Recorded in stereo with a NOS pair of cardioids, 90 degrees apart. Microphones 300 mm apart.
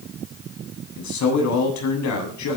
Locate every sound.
1.0 s a man speaking: 70° left, 8 m